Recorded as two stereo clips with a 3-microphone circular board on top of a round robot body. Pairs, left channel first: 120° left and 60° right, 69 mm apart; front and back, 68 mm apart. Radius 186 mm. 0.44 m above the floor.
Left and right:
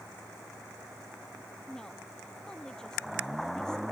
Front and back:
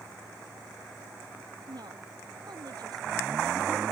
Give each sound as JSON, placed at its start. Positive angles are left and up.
{"t": 1.7, "sound": "a woman speaking", "azimuth_deg": -160}